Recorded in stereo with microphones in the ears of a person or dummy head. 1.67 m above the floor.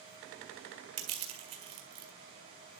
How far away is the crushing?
About 2 m.